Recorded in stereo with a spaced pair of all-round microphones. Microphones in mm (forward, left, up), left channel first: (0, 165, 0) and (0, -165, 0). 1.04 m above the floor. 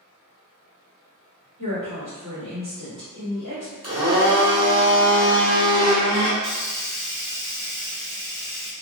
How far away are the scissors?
I don't hear scissors.